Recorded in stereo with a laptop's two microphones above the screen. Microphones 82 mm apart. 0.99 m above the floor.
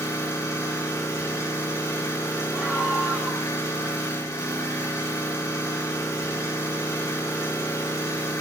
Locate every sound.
0.0 s an engine running: 40° left (ahead or behind), 3.5 m
2.5 s a scream: 5° right (ahead or behind), 1.9 m